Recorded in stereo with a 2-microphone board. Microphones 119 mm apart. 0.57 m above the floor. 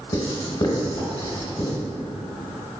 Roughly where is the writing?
Left.